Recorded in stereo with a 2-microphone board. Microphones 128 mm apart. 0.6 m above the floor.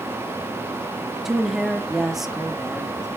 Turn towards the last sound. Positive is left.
turn(degrees=0)  # may be behind; listen again after turning